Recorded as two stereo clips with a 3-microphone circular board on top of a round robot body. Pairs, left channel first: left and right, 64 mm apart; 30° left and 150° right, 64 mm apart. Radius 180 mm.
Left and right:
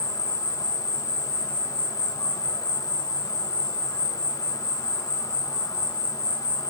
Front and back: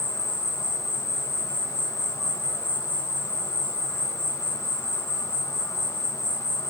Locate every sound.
0.0 s an insect: 70° left, 1.3 m